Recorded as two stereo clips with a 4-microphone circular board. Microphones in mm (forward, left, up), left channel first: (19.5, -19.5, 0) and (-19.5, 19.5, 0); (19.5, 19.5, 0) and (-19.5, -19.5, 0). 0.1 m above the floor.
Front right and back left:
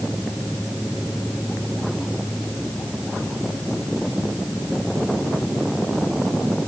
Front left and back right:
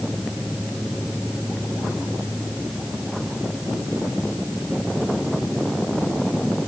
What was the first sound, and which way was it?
Only background noise.